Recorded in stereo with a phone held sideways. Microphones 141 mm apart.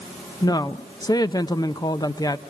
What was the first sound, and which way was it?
A woman speaking, 25° left (ahead or behind).